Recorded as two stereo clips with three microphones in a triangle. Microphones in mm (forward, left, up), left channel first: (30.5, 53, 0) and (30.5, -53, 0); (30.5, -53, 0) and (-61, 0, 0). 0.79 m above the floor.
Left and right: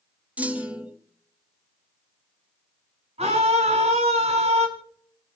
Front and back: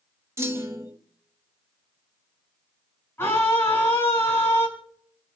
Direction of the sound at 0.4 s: 160° right.